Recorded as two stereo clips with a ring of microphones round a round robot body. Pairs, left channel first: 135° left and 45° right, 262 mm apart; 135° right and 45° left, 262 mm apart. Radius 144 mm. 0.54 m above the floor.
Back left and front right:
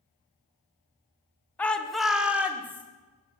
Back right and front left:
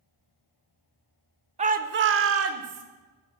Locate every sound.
1.6 s a shout: 60° left, 0.9 m; by 2.8 s 35° left, 1.7 m